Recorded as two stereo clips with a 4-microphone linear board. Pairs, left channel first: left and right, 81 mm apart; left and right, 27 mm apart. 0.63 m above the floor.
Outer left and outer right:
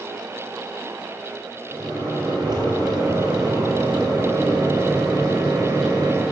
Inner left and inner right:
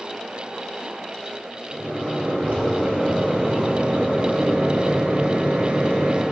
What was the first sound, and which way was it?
A microwave, 70° right (ahead or behind).